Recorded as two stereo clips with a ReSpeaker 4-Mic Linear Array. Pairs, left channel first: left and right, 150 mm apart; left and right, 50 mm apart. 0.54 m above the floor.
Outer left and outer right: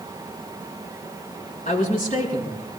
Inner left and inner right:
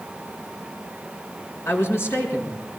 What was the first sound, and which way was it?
A woman speaking, 65° left (ahead or behind).